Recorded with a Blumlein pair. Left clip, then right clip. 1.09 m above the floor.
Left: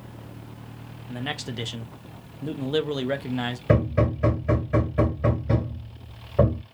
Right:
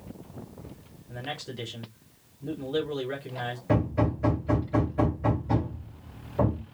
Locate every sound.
1.1 s a man speaking: 30° left, 0.9 m
3.7 s hammering: 20° left, 3 m